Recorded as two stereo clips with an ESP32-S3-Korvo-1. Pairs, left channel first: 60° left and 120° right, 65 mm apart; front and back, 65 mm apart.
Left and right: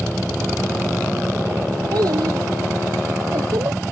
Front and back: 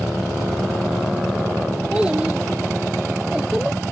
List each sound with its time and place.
1.9 s a child speaking: 105° right; by 3.8 s 100° right